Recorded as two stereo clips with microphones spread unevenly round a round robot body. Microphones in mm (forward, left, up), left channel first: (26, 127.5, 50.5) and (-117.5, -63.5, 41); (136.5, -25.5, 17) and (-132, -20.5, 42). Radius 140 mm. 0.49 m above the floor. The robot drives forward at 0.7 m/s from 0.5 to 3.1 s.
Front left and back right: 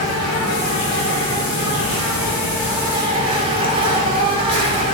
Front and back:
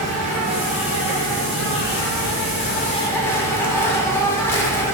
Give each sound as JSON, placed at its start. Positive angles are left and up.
{"t": 0.0, "sound": "an insect", "azimuth_deg": -10, "distance_m": 2.0}